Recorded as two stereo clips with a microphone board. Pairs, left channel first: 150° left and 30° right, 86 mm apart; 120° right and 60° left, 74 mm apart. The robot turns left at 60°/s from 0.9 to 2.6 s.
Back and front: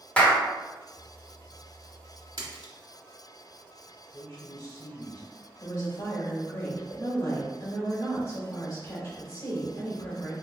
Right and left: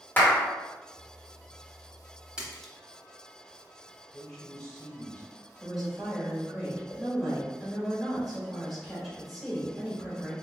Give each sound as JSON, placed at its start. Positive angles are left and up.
{"t": 0.2, "sound": "a clap", "azimuth_deg": -150, "distance_m": 0.9}
{"t": 2.4, "sound": "a splash", "azimuth_deg": -20, "distance_m": 0.9}
{"t": 4.1, "sound": "a man speaking", "azimuth_deg": 160, "distance_m": 1.8}
{"t": 5.6, "sound": "a woman speaking", "azimuth_deg": 150, "distance_m": 1.8}